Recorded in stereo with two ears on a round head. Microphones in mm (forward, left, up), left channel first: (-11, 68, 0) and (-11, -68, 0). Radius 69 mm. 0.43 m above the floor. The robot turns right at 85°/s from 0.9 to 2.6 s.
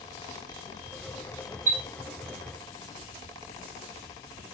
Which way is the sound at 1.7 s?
60° right (ahead or behind).